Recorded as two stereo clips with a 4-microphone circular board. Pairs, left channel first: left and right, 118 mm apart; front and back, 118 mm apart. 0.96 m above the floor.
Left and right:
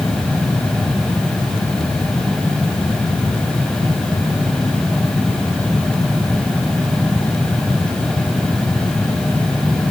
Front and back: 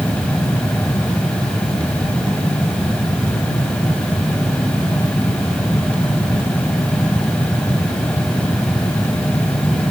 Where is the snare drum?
I don't hear a snare drum.